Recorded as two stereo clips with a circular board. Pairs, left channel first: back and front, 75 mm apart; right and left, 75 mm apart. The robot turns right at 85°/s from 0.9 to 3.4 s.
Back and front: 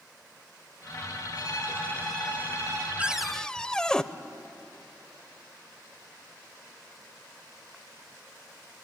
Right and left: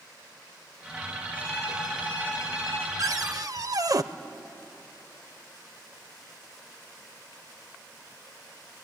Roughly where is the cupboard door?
Ahead left.